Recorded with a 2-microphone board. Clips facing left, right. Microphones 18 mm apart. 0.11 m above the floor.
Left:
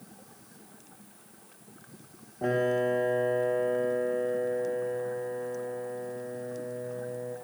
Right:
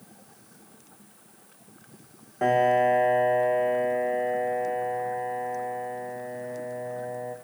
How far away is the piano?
About 7.5 m.